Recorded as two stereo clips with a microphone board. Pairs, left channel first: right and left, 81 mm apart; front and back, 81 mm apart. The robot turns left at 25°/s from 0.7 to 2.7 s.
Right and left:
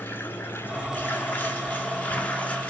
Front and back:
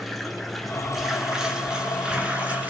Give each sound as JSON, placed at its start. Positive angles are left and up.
{"t": 0.0, "sound": "running water", "azimuth_deg": -85, "distance_m": 1.1}